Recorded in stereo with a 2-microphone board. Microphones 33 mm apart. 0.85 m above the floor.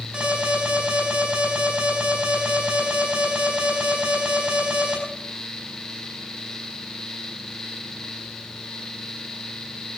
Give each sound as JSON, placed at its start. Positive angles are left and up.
{"t": 0.1, "sound": "an alarm", "side_deg": -35, "distance_m": 5.0}